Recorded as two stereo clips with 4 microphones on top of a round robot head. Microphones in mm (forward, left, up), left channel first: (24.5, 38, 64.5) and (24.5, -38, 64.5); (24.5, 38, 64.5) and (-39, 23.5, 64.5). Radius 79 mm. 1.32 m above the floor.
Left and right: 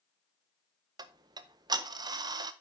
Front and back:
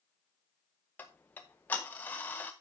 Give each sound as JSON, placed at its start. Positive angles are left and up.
{"t": 1.0, "sound": "ticking", "azimuth_deg": -55, "distance_m": 0.6}